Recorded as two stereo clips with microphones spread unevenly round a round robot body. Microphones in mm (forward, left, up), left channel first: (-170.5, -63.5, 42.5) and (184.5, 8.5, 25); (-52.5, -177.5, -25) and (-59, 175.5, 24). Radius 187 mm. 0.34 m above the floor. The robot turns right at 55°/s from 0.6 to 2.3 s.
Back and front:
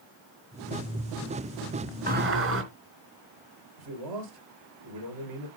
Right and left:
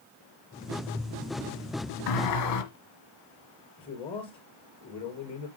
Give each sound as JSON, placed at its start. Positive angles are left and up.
{"t": 2.1, "sound": "a sliding door", "azimuth_deg": -60, "distance_m": 3.0}
{"t": 3.8, "sound": "a man speaking", "azimuth_deg": -15, "distance_m": 5.5}